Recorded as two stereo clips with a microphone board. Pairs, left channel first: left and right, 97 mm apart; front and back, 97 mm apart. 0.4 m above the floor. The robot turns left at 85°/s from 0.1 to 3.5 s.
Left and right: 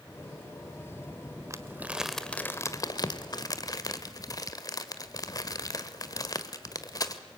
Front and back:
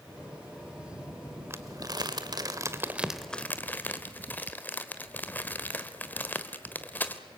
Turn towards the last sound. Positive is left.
turn(degrees=65)